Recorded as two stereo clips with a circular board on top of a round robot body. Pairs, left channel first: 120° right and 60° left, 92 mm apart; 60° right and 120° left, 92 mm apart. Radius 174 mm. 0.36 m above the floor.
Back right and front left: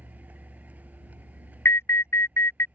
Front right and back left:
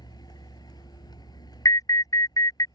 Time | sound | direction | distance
0.0 | a vehicle | 15° right | ?
1.6 | an alarm | 75° right | ?